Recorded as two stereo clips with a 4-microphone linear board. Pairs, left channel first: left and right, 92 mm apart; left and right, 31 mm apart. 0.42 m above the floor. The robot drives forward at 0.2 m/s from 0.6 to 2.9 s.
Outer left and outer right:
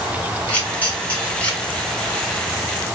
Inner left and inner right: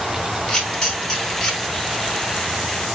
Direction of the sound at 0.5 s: 20° left (ahead or behind).